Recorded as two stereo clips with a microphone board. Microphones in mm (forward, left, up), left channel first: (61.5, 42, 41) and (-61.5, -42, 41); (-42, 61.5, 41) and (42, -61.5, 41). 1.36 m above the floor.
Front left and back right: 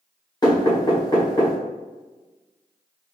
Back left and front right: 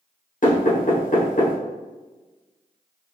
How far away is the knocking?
About 1.2 m.